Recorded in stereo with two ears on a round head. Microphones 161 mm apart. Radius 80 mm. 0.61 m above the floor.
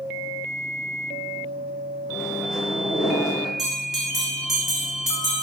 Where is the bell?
Centre (ahead or behind), 1.2 m.